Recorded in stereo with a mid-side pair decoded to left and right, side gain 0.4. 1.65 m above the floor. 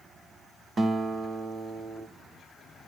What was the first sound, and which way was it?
A guitar, 45° right.